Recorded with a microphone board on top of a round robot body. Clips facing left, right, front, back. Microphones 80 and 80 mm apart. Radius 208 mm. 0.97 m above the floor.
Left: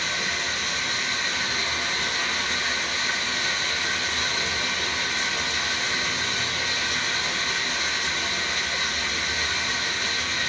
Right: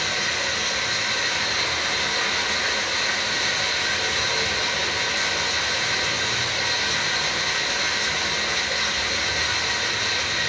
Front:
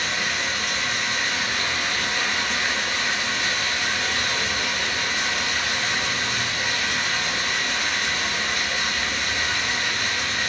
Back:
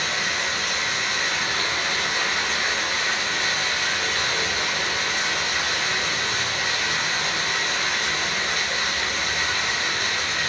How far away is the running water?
About 1.2 m.